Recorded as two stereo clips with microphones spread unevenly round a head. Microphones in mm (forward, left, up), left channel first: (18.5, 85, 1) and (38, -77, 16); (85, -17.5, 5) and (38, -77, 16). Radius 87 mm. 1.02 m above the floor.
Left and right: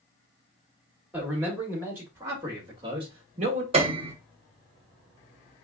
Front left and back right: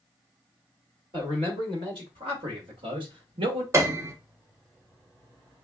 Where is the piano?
105° right, 0.8 m.